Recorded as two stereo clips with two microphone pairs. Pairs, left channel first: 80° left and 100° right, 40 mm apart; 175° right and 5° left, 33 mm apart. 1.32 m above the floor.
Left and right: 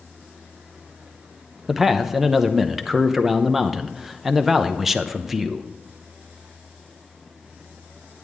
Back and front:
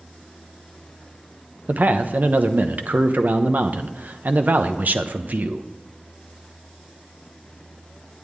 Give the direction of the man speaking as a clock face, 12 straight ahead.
1 o'clock.